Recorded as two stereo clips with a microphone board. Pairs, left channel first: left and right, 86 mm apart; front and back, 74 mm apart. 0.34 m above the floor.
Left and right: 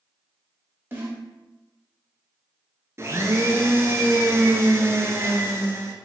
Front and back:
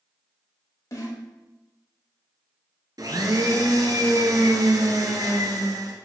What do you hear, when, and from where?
0.9 s a snare drum: 30° right, 1.4 m
3.0 s a blender: 150° right, 0.8 m